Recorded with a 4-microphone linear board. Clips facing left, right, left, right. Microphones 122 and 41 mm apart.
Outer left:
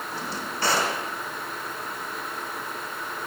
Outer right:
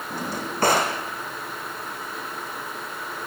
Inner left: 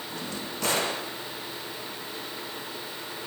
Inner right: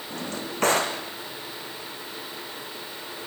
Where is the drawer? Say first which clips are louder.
Outer right 6 dB, inner right 4 dB; 50° right (ahead or behind), 4.5 m.